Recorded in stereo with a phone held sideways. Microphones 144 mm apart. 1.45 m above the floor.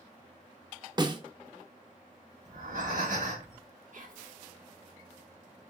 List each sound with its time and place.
1.0 s a snare drum: 30° right (ahead or behind), 0.8 m
2.5 s breathing: 65° right (ahead or behind), 1.8 m
3.9 s whispering: 65° right (ahead or behind), 1.4 m